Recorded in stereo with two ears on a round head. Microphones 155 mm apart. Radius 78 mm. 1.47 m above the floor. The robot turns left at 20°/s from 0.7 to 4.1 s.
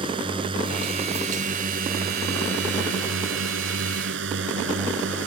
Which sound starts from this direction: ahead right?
A drone, at 0.0 s.